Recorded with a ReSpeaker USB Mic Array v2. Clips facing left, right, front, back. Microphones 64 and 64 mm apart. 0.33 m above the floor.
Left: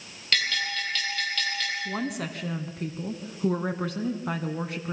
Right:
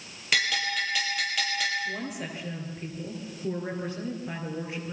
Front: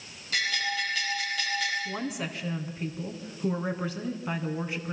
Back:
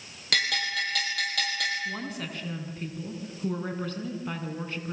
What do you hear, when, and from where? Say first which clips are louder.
0.3 s a bell: right 1 dB, back 1 dB; 170° right, 9 m
1.9 s a woman speaking: left 3 dB, front 1 dB; 75° left, 3 m